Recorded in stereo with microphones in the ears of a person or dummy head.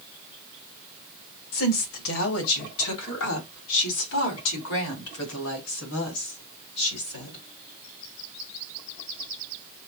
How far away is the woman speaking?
About 1.7 m.